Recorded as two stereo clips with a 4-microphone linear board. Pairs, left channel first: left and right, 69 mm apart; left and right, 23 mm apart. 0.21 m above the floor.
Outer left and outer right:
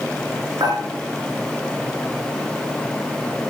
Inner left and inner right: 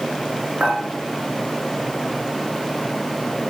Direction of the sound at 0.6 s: 80° right.